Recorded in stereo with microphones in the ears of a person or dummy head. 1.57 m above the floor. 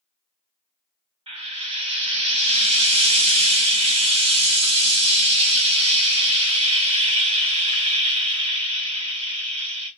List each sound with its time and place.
1.3 s frying: 30° right (ahead or behind), 0.9 m